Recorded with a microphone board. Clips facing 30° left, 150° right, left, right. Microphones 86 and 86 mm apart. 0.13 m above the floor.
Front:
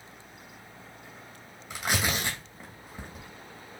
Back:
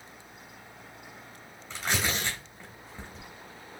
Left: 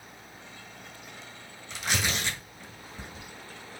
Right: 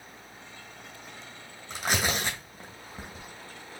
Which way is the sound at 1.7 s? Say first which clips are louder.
Front 1 dB, right 2 dB; 45° right.